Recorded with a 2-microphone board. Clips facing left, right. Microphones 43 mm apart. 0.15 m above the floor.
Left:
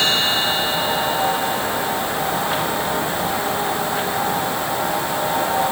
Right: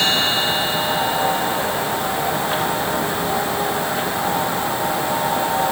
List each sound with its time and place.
Only background noise.